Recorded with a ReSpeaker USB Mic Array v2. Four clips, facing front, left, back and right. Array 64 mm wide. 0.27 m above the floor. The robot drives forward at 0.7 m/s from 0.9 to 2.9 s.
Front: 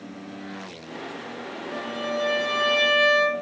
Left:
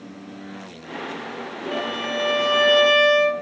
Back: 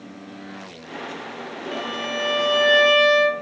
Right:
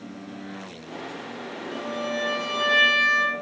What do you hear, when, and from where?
1.7 s a violin: 115° left, 1.4 m; by 3.3 s 140° left, 2.0 m